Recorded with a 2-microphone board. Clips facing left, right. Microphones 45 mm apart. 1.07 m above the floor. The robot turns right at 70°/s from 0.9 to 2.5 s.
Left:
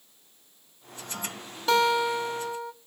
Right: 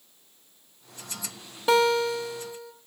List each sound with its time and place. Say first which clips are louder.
1.7 s a guitar: right 1 dB; 15° right, 1.0 m; by 2.7 s 40° left, 1.0 m